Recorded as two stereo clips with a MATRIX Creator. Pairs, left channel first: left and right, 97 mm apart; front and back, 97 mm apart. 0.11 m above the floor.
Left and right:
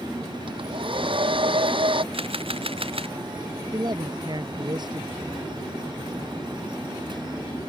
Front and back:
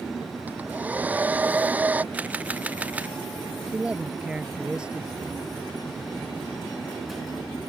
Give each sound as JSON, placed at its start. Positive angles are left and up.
{"t": 0.5, "sound": "a hair dryer", "azimuth_deg": -105}
{"t": 2.1, "sound": "a camera shutter", "azimuth_deg": -105}
{"t": 3.7, "sound": "a man speaking", "azimuth_deg": -105}